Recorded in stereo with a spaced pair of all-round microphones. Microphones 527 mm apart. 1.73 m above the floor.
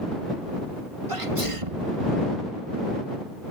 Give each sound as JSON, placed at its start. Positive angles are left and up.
{"t": 1.1, "sound": "a sneeze", "side_deg": -75}